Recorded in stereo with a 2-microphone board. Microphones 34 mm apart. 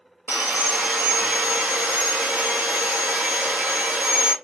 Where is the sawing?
55° right (ahead or behind), 0.9 m.